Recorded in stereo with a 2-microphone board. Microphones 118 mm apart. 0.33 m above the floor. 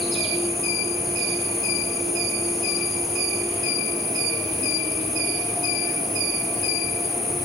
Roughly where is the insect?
Centre.